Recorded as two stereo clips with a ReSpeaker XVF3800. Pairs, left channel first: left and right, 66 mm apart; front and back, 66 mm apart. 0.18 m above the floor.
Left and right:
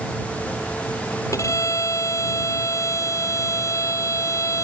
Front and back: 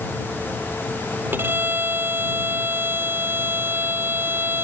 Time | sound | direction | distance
1.3 | a violin | 125° left | ?